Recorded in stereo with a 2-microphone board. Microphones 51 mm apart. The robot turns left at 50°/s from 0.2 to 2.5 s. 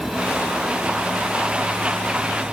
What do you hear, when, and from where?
Only background noise.